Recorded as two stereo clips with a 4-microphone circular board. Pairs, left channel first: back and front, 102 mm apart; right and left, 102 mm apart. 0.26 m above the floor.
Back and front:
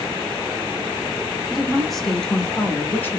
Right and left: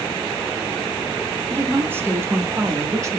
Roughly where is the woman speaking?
Left.